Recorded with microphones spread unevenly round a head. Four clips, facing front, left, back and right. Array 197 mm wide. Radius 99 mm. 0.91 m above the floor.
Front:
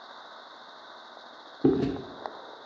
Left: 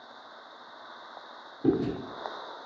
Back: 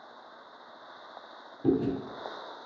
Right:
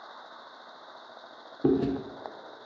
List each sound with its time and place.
1.6 s chewing: 30° right, 0.6 m